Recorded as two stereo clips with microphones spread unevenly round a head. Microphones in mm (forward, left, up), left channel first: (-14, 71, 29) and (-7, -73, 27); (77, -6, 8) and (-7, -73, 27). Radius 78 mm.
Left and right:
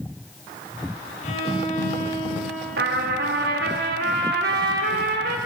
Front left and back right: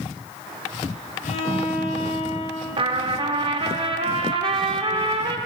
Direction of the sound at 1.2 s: 50° left.